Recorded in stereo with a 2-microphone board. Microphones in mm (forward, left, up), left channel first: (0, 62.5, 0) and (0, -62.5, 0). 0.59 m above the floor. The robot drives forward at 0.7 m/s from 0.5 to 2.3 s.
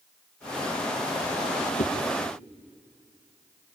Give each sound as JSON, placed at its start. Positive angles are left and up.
{"t": 1.8, "sound": "a whoosh", "side_deg": 75, "distance_m": 2.0}